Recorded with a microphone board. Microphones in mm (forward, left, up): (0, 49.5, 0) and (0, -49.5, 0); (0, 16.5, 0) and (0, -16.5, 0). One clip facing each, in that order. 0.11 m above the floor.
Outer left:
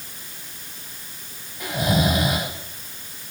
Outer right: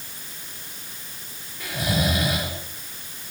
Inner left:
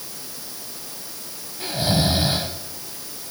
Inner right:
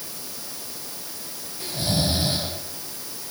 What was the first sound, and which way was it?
Snoring, 20° left (ahead or behind).